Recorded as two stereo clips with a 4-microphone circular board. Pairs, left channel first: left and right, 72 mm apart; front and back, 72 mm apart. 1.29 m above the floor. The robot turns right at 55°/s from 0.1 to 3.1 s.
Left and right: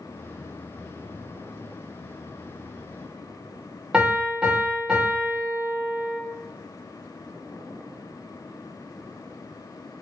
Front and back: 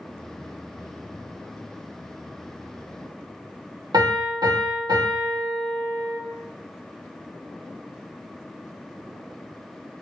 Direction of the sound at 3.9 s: 165° right.